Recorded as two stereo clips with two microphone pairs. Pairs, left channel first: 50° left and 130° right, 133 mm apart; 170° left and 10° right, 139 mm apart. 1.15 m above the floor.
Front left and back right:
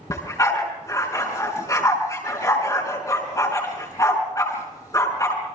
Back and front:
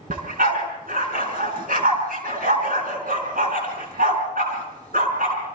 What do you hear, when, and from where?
0.1 s a dog barking: 15° right, 5 m